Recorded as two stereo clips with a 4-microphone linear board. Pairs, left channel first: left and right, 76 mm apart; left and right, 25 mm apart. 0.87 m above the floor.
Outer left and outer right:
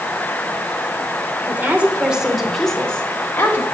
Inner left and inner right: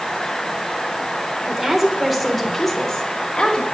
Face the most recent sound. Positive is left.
turn(degrees=30)  # may be behind; listen again after turning